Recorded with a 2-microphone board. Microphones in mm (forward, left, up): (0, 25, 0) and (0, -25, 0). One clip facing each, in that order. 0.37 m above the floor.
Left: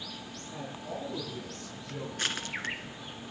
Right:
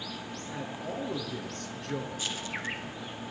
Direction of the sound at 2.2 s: 60° left (ahead or behind).